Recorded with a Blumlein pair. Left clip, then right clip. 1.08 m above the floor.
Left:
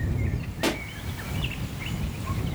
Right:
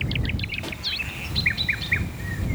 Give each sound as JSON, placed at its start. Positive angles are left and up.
{"t": 0.6, "sound": "a pop", "azimuth_deg": 30}